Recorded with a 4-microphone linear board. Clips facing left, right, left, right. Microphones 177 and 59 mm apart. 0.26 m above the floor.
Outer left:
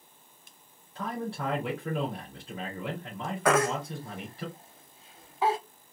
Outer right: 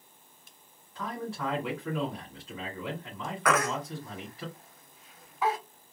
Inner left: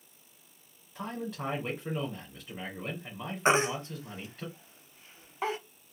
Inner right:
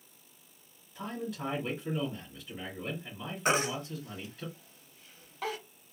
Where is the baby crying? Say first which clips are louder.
Outer left 3 dB, inner left 4 dB; 30° left (ahead or behind), 0.6 m.